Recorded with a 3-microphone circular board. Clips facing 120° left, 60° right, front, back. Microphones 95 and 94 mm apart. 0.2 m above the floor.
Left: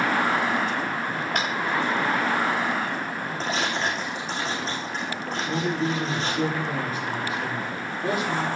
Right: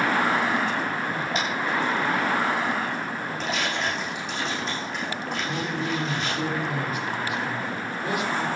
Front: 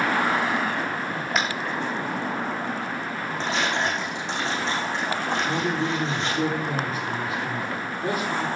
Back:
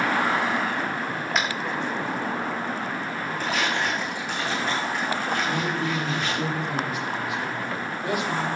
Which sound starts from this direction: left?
Tapping, at 1.4 s.